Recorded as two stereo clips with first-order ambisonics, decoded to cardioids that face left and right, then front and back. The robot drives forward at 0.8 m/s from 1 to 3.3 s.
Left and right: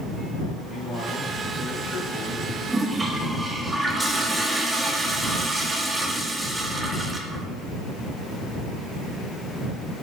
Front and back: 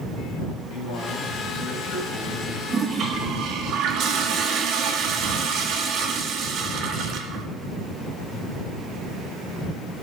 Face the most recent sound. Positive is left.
turn(degrees=-170)